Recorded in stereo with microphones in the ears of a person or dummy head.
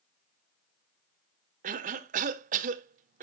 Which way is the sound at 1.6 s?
40° right (ahead or behind).